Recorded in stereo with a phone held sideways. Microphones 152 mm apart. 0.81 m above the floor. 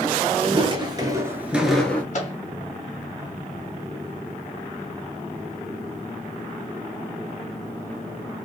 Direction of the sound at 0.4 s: 35° right (ahead or behind).